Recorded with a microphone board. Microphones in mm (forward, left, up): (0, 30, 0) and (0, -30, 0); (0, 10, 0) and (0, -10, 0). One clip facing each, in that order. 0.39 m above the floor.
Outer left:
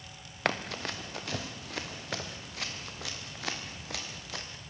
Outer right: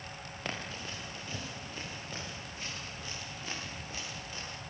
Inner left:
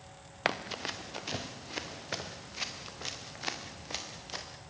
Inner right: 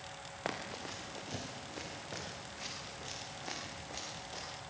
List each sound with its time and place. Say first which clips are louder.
0.5 s running footsteps: outer left 8 dB, inner left 8 dB; 65° left (ahead or behind), 2.5 m; by 4.4 s 80° left, 7 m